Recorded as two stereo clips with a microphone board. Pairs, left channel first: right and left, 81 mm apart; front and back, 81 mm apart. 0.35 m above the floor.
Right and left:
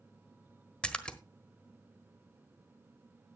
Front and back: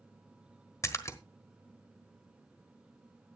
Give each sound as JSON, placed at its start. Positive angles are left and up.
{"t": 0.8, "sound": "a splash", "azimuth_deg": -20, "distance_m": 1.3}